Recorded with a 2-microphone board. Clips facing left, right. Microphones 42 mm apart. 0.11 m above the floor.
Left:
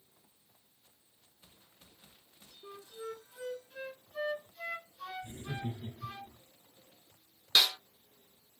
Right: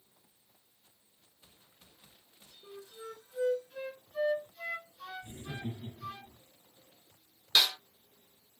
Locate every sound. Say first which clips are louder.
2.6 s a flute: left 2 dB; 5° left (ahead or behind), 0.6 m
5.2 s laughter: left 1 dB; 30° left (ahead or behind), 1.5 m
7.5 s a snare drum: even; centre (ahead or behind), 1.3 m